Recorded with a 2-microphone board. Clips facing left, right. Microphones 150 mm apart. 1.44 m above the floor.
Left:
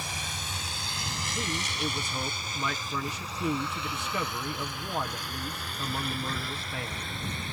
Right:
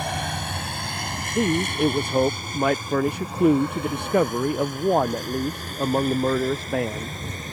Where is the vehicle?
65° right (ahead or behind); by 7.5 s 40° right (ahead or behind).